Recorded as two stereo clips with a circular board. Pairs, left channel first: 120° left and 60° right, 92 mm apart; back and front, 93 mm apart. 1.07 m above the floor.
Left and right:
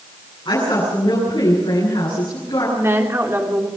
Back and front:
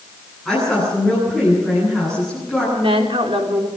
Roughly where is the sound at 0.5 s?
Left.